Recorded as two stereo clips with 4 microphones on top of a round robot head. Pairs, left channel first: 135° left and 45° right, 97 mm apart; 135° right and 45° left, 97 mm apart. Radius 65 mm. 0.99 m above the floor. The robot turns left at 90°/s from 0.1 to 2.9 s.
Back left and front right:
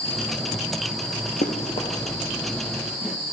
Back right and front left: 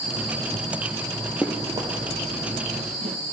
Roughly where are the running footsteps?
Behind left.